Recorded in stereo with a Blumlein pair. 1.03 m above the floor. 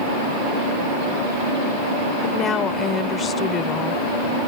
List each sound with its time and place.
2.2 s a woman speaking: 25° left